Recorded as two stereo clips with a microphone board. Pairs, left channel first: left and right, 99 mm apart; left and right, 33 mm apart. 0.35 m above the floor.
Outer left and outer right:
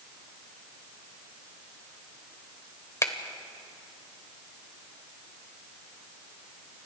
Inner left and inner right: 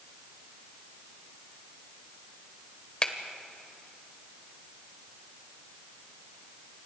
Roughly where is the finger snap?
Left.